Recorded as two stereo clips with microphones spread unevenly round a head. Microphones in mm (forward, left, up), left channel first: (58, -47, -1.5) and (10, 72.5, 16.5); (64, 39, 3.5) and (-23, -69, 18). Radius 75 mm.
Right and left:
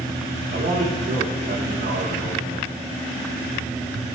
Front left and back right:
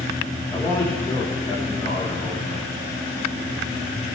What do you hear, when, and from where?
0.5 s a man speaking: 130° left, 5 m